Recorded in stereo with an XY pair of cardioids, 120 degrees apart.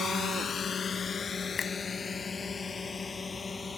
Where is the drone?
45° left; by 3.8 s 25° left.